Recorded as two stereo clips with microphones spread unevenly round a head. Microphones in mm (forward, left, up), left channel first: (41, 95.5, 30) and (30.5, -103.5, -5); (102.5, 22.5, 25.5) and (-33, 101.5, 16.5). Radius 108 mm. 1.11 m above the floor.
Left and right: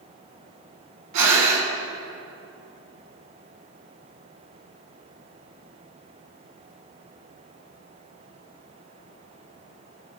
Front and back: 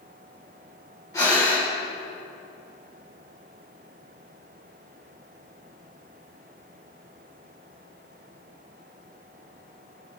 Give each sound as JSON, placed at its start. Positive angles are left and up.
{"t": 1.1, "sound": "breathing", "azimuth_deg": -105, "distance_m": 1.9}